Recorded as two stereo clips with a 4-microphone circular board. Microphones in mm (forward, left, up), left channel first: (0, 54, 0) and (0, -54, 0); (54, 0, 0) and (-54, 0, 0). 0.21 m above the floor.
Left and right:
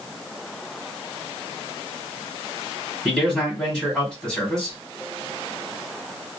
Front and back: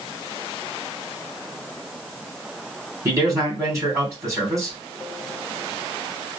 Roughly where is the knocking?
I don't hear knocking.